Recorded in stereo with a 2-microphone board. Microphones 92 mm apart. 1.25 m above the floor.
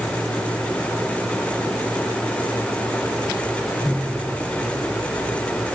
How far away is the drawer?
I don't hear a drawer.